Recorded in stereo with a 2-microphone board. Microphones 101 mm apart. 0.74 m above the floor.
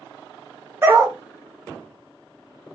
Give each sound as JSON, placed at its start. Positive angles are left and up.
{"t": 0.8, "sound": "a dog barking", "side_deg": -25, "distance_m": 0.7}